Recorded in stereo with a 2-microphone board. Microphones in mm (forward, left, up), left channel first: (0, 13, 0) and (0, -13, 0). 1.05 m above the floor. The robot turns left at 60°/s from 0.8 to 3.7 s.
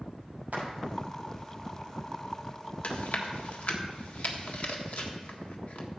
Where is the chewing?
60° left (ahead or behind), 1.4 m; by 5.9 s 65° left (ahead or behind), 1.4 m.